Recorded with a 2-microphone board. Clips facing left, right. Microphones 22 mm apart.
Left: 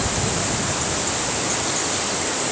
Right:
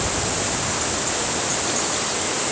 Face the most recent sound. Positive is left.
No sound to turn to.